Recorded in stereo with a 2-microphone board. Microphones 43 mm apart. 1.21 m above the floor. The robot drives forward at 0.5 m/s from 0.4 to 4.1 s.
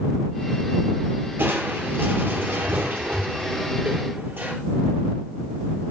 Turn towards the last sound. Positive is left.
turn(degrees=-55)  # may be behind; listen again after turning